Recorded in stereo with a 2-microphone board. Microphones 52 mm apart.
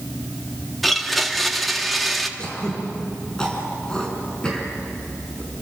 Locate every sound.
0.8 s a blender: centre (ahead or behind), 1.5 m
2.4 s throat clearing: 15° left (ahead or behind), 5.5 m